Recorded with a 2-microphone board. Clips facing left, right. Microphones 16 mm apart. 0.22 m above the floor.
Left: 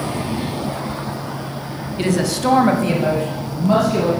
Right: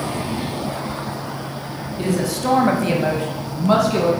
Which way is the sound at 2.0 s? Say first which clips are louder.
Left 3 dB; 30° left (ahead or behind).